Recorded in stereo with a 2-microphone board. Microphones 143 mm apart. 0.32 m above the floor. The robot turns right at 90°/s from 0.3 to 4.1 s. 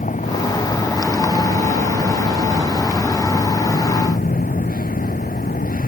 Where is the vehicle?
65° left (ahead or behind); by 5.9 s 85° left.